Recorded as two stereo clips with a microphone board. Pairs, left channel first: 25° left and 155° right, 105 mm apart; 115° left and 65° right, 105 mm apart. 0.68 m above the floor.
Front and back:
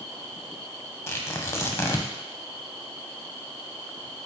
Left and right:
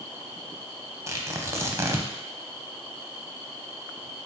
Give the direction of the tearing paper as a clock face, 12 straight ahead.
1 o'clock.